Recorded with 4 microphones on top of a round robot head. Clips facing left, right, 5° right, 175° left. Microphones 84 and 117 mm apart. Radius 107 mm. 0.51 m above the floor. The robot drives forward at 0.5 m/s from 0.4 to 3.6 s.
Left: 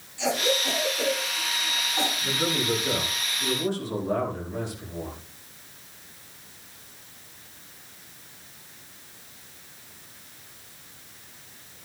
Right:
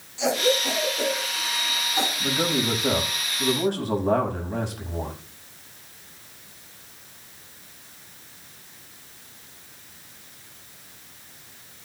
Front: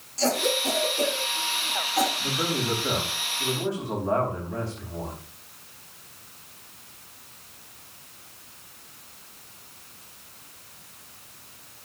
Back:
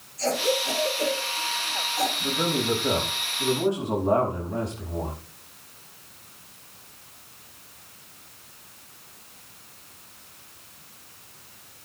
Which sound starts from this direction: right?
A man speaking, at 2.2 s.